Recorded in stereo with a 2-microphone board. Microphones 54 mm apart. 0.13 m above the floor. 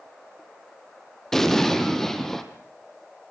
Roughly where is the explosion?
Centre.